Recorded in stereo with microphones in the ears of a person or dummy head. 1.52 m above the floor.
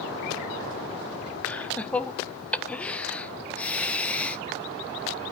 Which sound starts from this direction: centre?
Laughter, at 1.4 s.